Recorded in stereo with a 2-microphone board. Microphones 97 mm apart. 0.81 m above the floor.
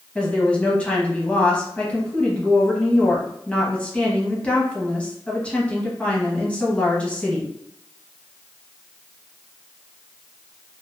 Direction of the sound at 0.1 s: 10° left (ahead or behind).